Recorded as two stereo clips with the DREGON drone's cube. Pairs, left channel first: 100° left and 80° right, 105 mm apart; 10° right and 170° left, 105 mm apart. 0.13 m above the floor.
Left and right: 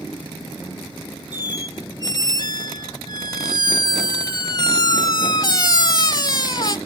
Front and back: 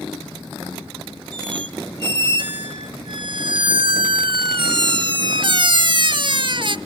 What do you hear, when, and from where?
1.3 s a squeak: 140° left, 0.6 m